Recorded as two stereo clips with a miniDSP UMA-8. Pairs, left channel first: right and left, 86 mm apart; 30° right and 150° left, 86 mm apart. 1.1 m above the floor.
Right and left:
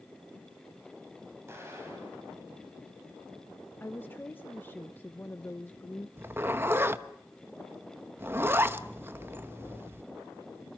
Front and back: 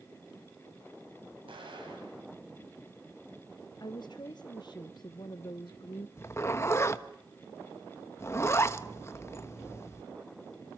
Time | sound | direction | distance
1.5 | an explosion | 150° left | 7.5 m
3.8 | a woman speaking | 30° right | 0.9 m
6.2 | a zipper | 25° left | 1.0 m